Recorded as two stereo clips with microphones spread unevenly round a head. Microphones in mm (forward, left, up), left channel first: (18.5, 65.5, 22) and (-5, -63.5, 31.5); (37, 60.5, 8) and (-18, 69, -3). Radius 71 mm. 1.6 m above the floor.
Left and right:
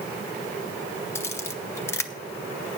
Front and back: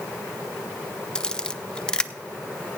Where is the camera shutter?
20° left, 0.5 m.